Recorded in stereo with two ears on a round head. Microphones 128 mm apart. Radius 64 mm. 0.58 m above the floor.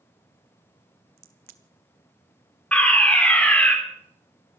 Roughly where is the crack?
Right.